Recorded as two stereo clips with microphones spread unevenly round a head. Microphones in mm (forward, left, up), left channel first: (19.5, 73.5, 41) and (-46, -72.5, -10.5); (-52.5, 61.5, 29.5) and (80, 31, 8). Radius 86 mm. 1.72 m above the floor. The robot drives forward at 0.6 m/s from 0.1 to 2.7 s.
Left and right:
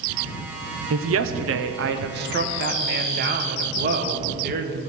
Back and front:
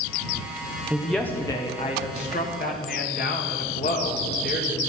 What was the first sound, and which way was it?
A woman speaking, 100° right.